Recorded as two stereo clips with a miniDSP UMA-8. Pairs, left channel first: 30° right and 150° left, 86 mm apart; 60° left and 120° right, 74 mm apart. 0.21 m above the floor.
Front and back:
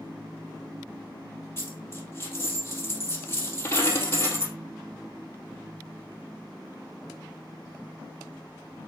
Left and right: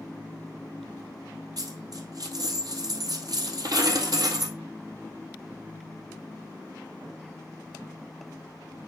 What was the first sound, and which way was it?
A dropped coin, 90° right.